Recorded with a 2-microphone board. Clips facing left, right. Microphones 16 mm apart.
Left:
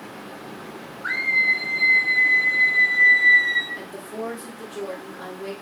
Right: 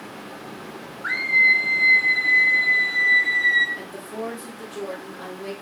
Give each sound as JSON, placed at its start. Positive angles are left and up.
{"t": 1.0, "sound": "a scream", "side_deg": -15, "distance_m": 0.6}
{"t": 3.8, "sound": "a woman speaking", "side_deg": 0, "distance_m": 0.7}